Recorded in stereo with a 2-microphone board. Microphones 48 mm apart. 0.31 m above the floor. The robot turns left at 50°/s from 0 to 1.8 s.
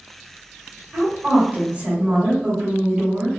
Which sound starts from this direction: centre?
A woman speaking, at 0.9 s.